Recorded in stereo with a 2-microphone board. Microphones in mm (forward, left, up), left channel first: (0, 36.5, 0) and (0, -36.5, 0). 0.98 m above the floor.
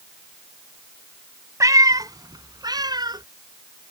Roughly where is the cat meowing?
Right.